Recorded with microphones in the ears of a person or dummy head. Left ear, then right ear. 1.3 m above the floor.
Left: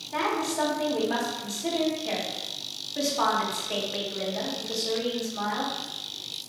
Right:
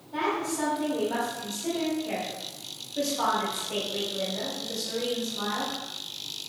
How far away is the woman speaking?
About 1.7 m.